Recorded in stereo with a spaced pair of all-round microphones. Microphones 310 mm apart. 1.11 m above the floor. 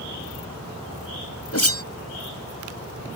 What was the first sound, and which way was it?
A whoosh, 50° left (ahead or behind).